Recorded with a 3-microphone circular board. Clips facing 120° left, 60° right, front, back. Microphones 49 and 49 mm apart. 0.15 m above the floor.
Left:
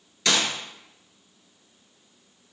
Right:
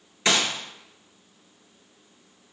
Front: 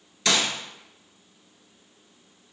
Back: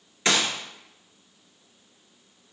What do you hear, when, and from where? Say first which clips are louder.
0.2 s a gunshot: right 1 dB, even; 120° right, 0.7 m